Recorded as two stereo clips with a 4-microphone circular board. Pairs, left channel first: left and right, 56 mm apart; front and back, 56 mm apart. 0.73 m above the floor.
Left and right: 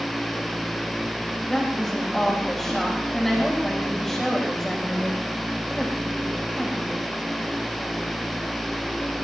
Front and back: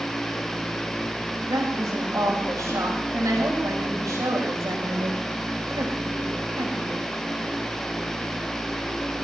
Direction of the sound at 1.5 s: 175° left.